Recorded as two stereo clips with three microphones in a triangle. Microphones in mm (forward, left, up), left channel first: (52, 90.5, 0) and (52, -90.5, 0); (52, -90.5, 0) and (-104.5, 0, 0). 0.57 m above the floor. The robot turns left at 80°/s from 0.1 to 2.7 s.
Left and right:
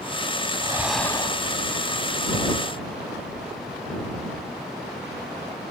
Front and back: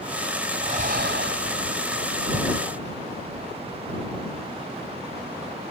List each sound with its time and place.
0.6 s breathing: 155° right; by 1.8 s 110° left